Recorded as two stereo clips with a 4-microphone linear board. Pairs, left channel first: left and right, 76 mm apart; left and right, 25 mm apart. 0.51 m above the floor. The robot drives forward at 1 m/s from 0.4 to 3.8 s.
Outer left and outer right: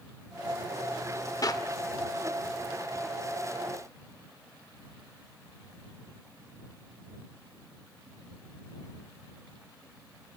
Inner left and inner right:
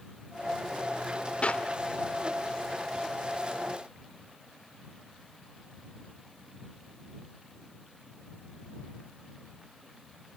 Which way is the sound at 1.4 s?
50° left (ahead or behind).